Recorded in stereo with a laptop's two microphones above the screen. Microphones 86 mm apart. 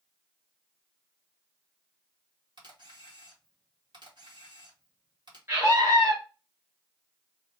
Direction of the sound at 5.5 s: 40° right (ahead or behind).